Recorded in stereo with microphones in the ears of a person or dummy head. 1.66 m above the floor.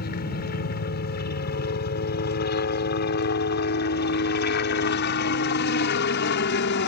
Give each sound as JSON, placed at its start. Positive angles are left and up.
{"t": 0.0, "sound": "a helicopter", "side_deg": 45}